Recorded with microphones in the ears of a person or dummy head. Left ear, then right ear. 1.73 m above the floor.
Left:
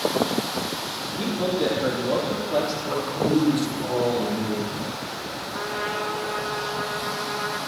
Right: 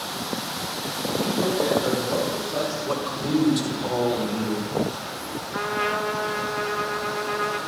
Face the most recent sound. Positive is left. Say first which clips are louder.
# right 4 dB
turn(degrees=-70)  # may be behind; listen again after turning